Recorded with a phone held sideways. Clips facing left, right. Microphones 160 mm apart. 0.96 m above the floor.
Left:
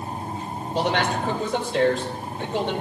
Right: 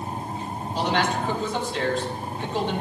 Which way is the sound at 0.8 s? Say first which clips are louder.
Left 1 dB; 70° left (ahead or behind).